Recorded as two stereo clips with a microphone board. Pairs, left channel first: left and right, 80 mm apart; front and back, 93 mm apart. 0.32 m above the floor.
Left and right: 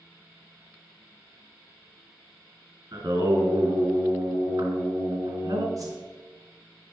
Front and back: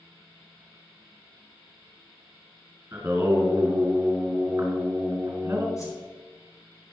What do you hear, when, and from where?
2.9 s singing: 115° right, 3 m
5.8 s a whoosh: 50° right, 2.5 m